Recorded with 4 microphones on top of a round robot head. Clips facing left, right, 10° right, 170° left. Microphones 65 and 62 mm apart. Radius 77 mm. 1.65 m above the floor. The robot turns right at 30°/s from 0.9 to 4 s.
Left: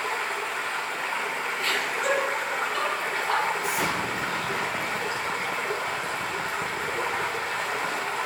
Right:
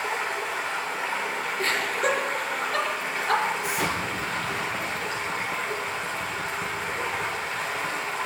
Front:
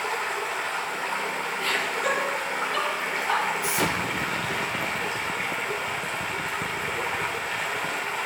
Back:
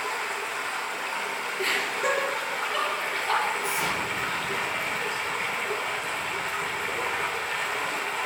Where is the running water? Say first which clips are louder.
Even, front 2 dB; 20° right, 1.4 m; by 8.3 s 75° left, 1.4 m.